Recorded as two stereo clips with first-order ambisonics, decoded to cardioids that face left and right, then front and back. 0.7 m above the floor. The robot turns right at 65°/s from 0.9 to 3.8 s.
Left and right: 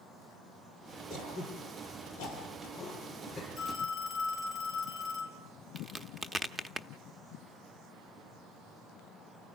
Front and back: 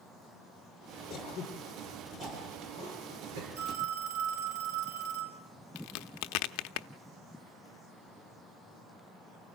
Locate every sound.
1.1 s throat clearing: 35° left, 8.5 m; by 3.5 s 170° right, 8.5 m
3.6 s a phone ringing: 175° left, 4 m; by 5.4 s 170° right, 4 m
5.8 s a crack: 10° right, 0.7 m